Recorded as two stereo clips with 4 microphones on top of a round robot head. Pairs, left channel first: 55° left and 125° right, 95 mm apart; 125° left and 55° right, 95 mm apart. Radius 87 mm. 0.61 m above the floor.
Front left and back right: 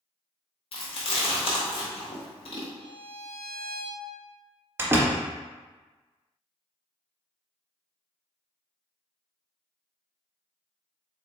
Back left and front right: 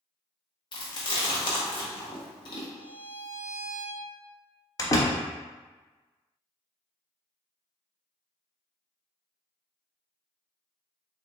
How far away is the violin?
About 1.2 m.